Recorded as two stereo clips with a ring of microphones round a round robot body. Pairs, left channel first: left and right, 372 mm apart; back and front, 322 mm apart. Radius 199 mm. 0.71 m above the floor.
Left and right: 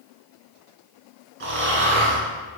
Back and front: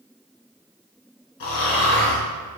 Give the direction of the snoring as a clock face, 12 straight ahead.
5 o'clock.